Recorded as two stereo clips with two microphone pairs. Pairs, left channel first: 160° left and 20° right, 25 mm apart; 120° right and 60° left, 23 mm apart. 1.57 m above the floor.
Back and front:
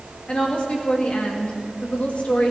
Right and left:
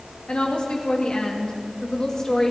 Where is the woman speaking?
160° right, 2.5 m; by 2.5 s 175° left, 2.5 m.